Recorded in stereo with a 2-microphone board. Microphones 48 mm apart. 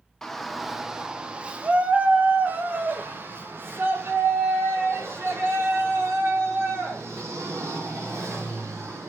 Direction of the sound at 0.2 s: 5° left (ahead or behind).